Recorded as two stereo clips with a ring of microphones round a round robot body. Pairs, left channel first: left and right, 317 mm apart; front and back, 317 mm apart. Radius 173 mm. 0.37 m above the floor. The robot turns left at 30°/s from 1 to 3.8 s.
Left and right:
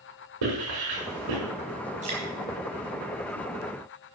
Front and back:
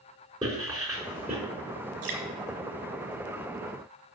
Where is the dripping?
160° right, 4 m; by 2.2 s 165° right, 4 m.